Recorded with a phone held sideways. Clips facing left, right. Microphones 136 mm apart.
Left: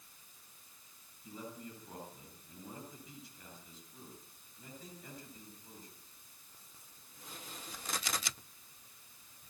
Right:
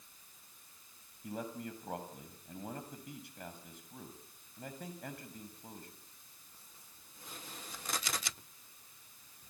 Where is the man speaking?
70° right (ahead or behind), 7 m.